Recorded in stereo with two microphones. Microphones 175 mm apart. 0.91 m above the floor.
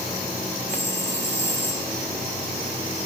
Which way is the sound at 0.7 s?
80° left.